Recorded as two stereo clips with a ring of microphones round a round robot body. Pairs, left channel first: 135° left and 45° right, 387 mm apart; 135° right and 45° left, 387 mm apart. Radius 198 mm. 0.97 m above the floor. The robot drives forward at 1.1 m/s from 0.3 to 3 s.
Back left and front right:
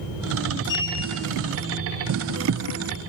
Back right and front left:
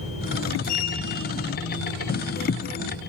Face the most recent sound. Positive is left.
turn(degrees=-175)